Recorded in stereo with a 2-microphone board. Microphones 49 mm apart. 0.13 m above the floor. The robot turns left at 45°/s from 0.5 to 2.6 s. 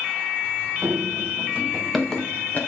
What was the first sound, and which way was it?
Running footsteps, 75° right (ahead or behind).